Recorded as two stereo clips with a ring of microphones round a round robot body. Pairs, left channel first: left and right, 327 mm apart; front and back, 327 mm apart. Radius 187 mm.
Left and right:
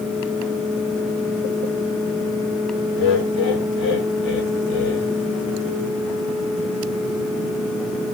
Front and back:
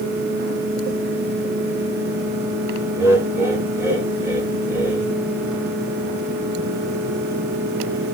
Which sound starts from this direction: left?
Laughter, at 3.0 s.